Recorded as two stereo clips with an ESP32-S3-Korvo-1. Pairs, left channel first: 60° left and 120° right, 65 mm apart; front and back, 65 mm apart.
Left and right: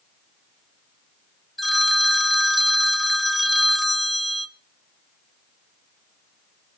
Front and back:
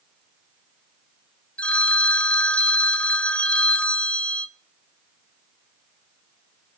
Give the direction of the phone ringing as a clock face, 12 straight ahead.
1 o'clock.